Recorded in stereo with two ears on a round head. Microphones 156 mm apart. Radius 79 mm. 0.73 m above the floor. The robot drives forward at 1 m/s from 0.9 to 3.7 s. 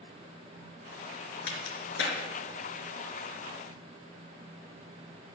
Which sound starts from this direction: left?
A crack, at 1.5 s.